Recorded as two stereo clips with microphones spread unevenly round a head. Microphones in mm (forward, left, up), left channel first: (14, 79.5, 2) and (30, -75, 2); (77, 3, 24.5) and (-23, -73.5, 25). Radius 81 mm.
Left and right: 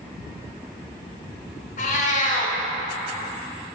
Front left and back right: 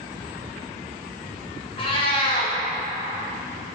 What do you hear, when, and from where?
1.8 s a cat meowing: 85° left, 0.7 m